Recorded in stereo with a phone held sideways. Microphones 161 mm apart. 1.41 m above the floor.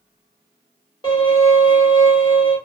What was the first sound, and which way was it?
A violin, 30° left (ahead or behind).